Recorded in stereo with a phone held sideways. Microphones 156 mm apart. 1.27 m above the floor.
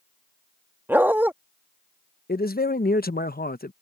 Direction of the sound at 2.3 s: 75° left (ahead or behind).